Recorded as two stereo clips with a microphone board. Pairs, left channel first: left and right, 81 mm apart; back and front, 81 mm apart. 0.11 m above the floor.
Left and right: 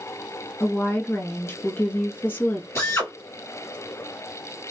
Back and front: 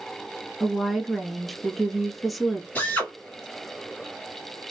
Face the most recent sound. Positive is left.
turn(degrees=125)